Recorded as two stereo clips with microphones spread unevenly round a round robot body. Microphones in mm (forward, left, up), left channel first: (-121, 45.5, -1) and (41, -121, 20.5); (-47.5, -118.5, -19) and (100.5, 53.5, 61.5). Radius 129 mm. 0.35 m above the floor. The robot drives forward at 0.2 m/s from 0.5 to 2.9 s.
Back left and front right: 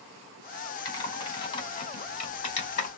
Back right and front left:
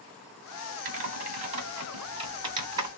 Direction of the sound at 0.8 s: 105° left.